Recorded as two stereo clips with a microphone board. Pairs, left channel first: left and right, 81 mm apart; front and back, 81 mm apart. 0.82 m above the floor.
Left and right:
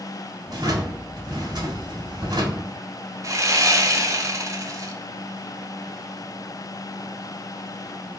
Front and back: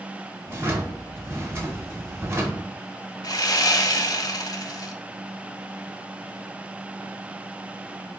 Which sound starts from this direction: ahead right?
Sawing, at 3.2 s.